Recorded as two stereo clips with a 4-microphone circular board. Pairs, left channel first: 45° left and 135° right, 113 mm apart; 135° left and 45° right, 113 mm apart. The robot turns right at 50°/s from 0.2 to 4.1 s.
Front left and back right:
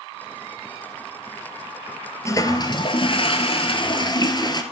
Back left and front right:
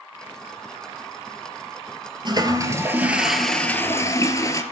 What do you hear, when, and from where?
2.2 s a toilet flushing: 10° right, 1.1 m; by 4.6 s 80° left, 1.1 m